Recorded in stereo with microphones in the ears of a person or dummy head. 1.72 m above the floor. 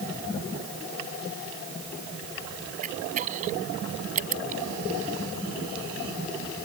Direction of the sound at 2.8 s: 40° right (ahead or behind).